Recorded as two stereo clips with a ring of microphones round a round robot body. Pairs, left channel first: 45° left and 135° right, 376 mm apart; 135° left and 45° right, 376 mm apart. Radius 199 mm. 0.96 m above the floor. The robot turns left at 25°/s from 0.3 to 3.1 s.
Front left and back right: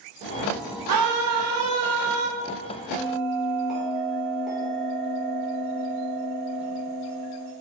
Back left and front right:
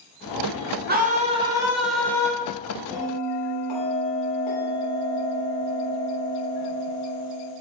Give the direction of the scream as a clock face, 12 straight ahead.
4 o'clock.